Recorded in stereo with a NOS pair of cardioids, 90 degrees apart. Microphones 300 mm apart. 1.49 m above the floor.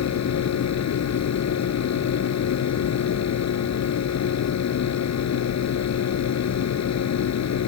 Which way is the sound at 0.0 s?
60° left.